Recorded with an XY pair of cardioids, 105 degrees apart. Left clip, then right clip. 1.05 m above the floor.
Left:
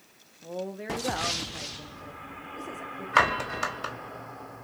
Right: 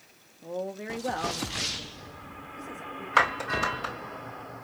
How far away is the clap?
About 2.5 m.